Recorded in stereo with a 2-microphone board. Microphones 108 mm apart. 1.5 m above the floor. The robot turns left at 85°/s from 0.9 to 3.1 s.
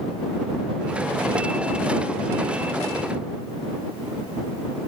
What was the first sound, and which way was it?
Only background noise.